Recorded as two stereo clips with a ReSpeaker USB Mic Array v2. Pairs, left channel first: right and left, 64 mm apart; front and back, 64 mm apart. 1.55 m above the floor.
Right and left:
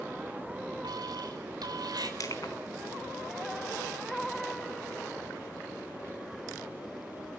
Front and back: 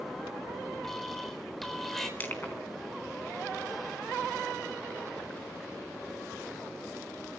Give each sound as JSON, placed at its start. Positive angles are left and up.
{"t": 0.8, "sound": "an alarm", "azimuth_deg": 85, "distance_m": 4.0}
{"t": 2.2, "sound": "crushing", "azimuth_deg": -60, "distance_m": 4.0}